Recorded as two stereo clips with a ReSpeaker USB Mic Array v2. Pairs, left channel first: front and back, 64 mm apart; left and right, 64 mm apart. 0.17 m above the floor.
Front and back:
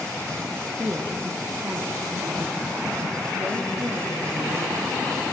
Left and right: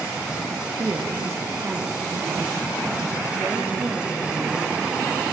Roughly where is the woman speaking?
Behind right.